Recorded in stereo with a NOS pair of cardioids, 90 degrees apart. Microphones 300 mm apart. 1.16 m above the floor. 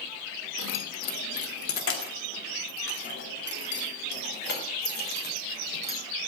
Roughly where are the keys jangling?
Ahead left.